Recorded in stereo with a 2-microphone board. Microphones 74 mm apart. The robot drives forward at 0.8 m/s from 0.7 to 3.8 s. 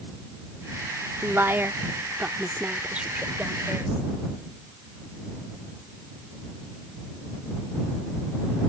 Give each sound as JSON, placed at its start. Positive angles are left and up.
{"t": 1.2, "sound": "a woman speaking", "side_deg": -30}